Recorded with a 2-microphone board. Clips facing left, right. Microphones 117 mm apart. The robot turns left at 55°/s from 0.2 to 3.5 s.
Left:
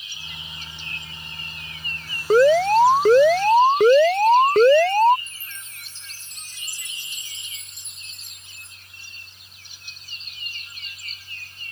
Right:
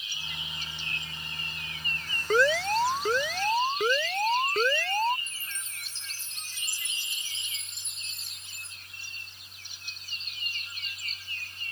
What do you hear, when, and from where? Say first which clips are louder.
2.3 s an alarm: left 10 dB; 140° left; by 5.2 s 75° left
5.3 s a chime: even; 15° left (ahead or behind)